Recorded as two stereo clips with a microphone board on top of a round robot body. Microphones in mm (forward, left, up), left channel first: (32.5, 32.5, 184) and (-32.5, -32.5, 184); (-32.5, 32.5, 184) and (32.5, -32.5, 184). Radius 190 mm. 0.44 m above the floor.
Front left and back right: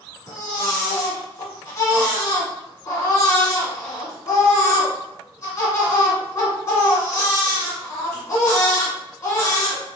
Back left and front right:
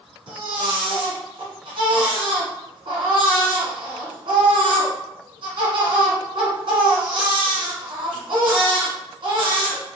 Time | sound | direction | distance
0.3 | a baby crying | 10° right | 1.5 m